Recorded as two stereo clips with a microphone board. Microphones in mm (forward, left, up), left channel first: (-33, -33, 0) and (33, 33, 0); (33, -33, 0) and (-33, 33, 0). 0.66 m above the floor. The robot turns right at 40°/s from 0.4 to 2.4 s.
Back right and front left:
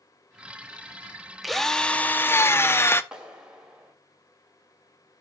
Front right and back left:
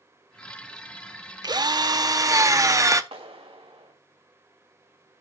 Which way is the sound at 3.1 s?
125° left.